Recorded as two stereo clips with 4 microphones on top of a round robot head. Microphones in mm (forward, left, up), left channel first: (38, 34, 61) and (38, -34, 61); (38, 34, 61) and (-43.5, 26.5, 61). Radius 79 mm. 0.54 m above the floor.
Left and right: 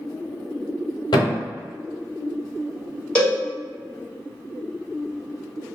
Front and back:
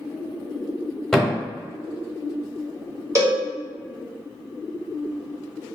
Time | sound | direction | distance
1.1 | a thud | 95° left | 1.1 m
3.1 | a cowbell | 160° left | 1.7 m